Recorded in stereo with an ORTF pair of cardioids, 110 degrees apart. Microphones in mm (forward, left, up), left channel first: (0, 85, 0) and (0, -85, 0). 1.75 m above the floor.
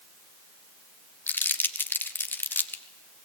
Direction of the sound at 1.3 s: 10° left.